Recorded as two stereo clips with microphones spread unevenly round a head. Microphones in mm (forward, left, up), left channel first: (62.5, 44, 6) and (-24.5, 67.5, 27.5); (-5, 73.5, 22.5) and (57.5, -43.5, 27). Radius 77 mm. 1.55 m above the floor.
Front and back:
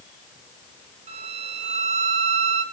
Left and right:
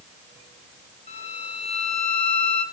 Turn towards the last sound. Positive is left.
turn(degrees=170)